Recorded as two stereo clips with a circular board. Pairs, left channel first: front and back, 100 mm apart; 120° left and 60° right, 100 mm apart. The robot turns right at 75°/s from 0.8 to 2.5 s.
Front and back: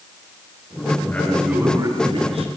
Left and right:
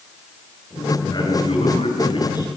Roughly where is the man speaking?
Left.